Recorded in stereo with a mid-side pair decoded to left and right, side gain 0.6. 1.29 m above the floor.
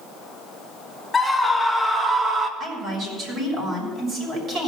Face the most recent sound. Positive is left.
turn(degrees=-45)